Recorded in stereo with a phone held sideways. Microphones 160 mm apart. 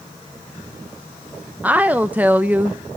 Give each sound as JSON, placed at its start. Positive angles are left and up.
{"t": 1.6, "sound": "a woman speaking", "side_deg": -10, "distance_m": 0.6}